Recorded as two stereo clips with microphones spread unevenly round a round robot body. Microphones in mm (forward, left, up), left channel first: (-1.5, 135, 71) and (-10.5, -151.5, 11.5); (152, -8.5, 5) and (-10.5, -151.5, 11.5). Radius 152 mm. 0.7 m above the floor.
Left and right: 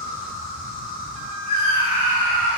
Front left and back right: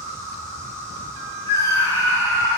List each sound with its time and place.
0.0 s an insect: 30° right, 5 m
1.5 s a scream: 35° right, 4.5 m